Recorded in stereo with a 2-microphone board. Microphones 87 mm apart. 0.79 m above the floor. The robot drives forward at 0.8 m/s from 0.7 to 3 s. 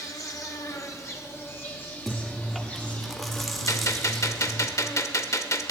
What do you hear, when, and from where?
0.0 s an insect: 45° left (ahead or behind), 1.3 m; by 5.7 s 20° left (ahead or behind), 3 m
2.1 s chewing: centre (ahead or behind), 0.6 m
3.7 s a gunshot: 40° left (ahead or behind), 0.7 m